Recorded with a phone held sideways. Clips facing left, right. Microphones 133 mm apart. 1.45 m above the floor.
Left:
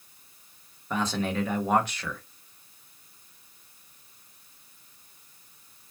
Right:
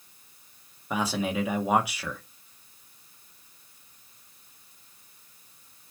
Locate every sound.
0.9 s a man speaking: 10° right (ahead or behind), 1.2 m